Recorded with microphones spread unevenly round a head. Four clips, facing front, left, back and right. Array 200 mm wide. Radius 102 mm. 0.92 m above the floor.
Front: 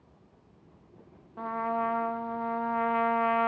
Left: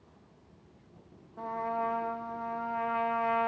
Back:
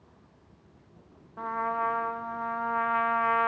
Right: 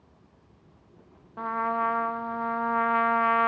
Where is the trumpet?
70° right, 0.7 m.